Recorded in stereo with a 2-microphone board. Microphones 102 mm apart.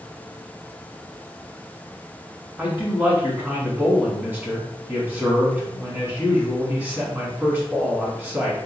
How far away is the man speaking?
About 1.1 m.